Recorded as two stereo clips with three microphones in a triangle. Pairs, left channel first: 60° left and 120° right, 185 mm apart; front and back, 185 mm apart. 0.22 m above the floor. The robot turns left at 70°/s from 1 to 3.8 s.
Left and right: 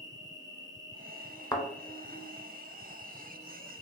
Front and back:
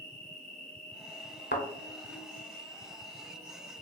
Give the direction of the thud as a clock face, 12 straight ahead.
12 o'clock.